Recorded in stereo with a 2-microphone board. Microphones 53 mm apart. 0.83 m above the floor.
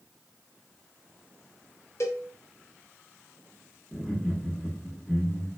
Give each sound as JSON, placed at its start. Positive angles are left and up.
{"t": 2.0, "sound": "a cowbell", "side_deg": 65, "distance_m": 0.8}
{"t": 3.9, "sound": "laughter", "side_deg": 5, "distance_m": 1.0}